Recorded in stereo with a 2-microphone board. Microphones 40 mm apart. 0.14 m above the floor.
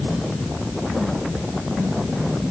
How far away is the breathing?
I don't hear breathing.